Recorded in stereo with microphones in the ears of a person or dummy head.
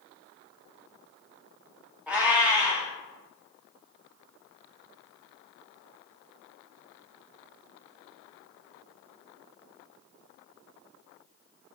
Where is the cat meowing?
5° right (ahead or behind), 0.6 m.